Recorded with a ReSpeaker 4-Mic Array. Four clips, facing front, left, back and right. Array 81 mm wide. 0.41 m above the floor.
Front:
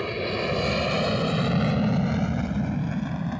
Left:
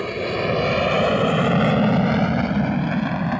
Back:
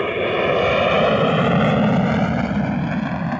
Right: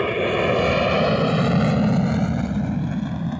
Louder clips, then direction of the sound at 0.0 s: Right 3 dB, back 8 dB; 160° right.